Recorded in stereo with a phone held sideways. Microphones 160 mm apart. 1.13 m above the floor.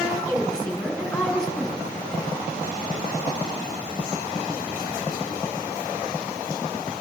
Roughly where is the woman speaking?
Centre.